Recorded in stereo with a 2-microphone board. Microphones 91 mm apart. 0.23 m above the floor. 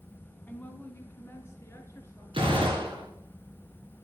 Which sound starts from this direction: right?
A gunshot, at 2.3 s.